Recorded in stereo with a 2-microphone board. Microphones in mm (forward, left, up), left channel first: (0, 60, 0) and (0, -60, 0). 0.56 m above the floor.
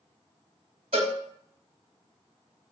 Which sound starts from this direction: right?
A cowbell, at 0.9 s.